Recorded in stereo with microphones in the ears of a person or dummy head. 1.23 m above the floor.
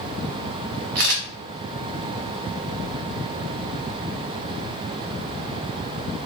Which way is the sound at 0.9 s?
55° right (ahead or behind).